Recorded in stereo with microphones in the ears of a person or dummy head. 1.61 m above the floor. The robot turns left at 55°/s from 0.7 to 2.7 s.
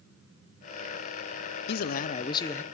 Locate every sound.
1.7 s a man speaking: 60° left, 0.5 m; by 2.6 s 10° left, 0.5 m